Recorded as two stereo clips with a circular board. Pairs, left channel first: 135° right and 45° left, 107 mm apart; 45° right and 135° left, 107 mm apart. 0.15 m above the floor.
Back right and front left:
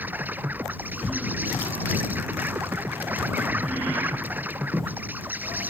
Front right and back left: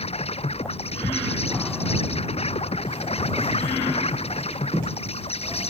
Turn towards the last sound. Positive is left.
turn(degrees=-30)